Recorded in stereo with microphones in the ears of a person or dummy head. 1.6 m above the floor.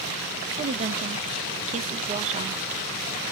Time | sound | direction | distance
0.6 | a woman speaking | 35° right (ahead or behind) | 0.7 m